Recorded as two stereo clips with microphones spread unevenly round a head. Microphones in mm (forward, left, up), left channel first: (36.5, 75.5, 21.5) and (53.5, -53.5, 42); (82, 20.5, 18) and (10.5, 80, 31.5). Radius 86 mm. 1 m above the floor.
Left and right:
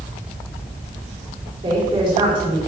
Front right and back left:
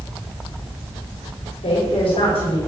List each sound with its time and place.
1.6 s a woman speaking: 30° right, 5.5 m